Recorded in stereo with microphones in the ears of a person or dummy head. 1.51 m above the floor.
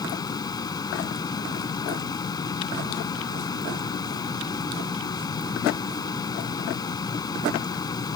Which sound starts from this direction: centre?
A fan, at 0.0 s.